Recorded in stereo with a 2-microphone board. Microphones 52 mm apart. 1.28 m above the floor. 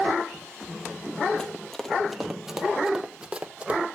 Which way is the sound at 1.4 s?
15° left (ahead or behind).